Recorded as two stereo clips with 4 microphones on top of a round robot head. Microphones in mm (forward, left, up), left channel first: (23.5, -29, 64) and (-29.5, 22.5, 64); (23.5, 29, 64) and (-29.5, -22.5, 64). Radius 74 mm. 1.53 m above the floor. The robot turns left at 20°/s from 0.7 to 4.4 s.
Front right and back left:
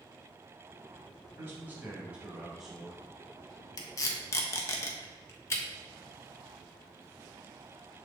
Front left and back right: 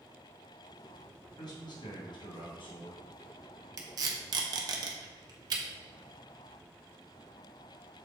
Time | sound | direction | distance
1.4 | a man speaking | 75° left | 2 m
3.8 | tape being pulled | 90° right | 1.0 m